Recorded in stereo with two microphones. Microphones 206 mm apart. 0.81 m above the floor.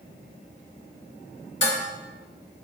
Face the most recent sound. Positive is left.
turn(degrees=65)  # may be behind; listen again after turning